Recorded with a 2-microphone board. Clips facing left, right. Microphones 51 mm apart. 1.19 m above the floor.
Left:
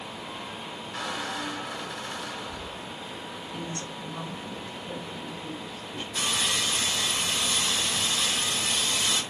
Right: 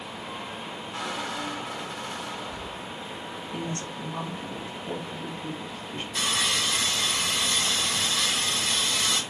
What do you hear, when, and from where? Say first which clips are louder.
0.9 s a squeak: even; 30° right (ahead or behind), 4 m
3.5 s a woman speaking: right 3 dB; 50° right (ahead or behind), 3 m
6.2 s sawing: right 1 dB; 85° right, 4.5 m